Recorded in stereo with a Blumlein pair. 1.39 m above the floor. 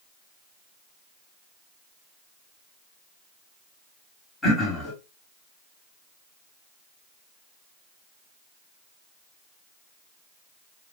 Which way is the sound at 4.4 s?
15° left.